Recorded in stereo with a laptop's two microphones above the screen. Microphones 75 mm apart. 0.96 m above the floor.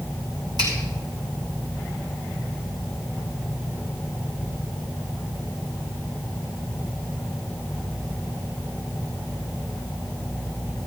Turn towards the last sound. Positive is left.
turn(degrees=-70)  # may be behind; listen again after turning